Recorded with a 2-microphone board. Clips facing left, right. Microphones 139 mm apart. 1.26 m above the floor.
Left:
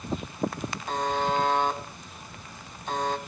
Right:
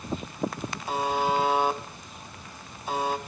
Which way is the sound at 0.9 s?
10° right (ahead or behind).